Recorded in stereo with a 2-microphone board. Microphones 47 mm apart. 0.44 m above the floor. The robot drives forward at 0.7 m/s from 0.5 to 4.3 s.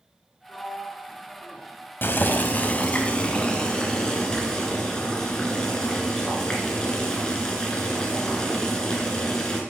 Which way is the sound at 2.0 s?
50° left (ahead or behind).